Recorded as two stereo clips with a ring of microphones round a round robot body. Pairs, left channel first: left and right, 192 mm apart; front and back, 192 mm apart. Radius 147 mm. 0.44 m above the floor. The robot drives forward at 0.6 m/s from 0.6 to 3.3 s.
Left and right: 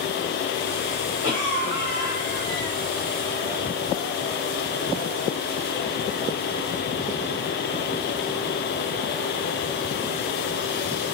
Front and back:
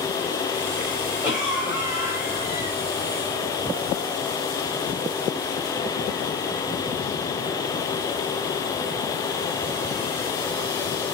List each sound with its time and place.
1.2 s a cough: 145° right, 2.0 m; by 2.8 s 160° right, 2.5 m